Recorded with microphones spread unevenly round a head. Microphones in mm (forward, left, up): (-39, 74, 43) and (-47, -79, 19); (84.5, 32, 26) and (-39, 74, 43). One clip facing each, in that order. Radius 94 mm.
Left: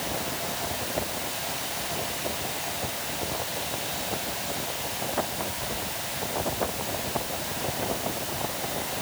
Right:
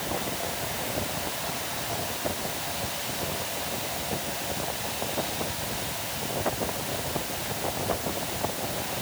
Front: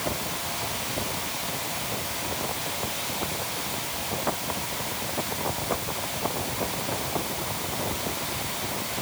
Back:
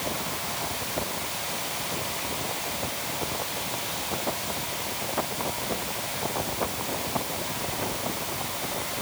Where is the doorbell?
No doorbell in this recording.